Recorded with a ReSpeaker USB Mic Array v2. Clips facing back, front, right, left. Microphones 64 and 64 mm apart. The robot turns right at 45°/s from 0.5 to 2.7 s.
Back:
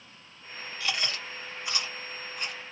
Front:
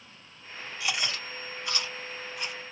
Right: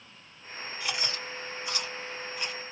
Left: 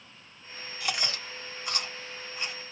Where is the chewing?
70° left, 1.7 m; by 2.6 s 150° left, 1.7 m.